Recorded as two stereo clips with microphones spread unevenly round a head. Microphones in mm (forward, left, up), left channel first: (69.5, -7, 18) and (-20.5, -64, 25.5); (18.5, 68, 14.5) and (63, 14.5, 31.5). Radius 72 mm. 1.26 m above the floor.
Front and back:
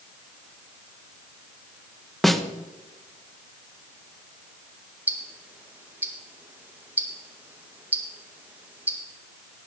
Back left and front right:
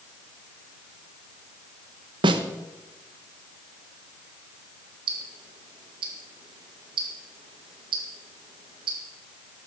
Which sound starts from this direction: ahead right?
A snare drum, at 2.2 s.